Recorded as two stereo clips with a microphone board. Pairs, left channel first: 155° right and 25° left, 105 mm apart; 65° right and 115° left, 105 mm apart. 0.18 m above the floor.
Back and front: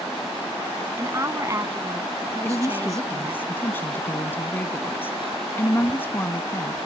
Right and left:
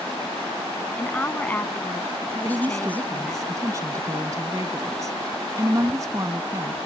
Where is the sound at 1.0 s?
5° right.